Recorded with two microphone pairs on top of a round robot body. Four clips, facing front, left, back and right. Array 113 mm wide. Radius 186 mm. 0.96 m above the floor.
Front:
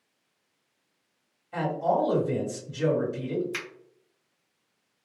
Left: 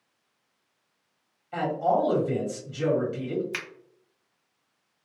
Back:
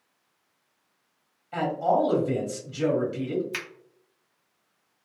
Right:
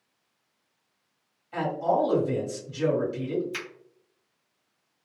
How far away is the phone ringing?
No phone ringing in this recording.